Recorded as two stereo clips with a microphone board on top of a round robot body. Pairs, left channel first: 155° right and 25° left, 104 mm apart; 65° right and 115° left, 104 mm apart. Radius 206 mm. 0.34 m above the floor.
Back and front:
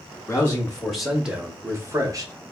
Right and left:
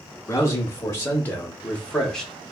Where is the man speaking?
105° right, 1.1 m; by 2.3 s 15° left, 1.2 m.